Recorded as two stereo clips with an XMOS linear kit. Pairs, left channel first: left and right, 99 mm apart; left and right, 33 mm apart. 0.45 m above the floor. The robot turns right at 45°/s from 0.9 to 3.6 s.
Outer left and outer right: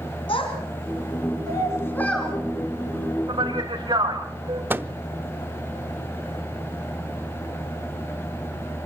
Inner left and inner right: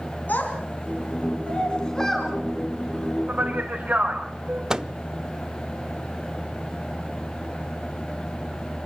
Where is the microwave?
20° right (ahead or behind), 0.6 m.